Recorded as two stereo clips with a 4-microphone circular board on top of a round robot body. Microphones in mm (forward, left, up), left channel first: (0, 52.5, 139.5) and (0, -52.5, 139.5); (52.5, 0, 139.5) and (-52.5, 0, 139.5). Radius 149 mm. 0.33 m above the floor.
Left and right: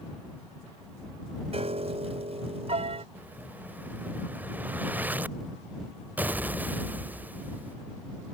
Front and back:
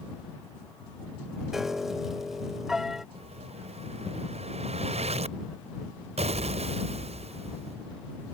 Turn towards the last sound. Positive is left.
turn(degrees=-165)